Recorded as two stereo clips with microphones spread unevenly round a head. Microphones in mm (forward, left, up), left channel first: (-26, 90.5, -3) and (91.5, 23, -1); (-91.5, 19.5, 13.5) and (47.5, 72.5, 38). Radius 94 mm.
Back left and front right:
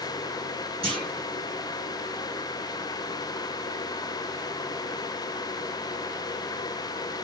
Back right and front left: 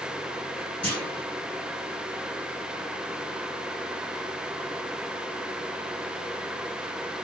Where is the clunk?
70° right, 1.6 m.